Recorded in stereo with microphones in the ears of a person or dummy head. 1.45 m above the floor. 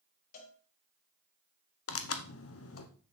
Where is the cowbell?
50° left (ahead or behind), 3 m.